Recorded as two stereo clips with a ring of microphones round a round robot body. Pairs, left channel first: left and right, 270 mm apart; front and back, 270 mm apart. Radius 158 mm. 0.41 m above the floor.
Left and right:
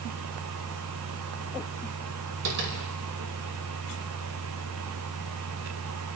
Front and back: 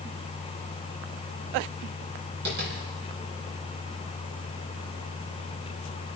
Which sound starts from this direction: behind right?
Tapping, at 2.5 s.